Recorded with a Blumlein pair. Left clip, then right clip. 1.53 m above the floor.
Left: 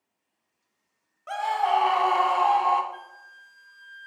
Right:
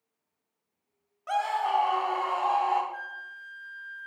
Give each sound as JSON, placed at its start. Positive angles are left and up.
{"t": 1.3, "sound": "a scream", "azimuth_deg": 0, "distance_m": 0.6}
{"t": 2.9, "sound": "a flute", "azimuth_deg": 40, "distance_m": 1.2}